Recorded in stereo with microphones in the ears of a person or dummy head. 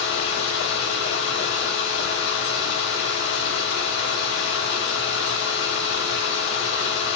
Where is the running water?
70° left (ahead or behind), 5 m.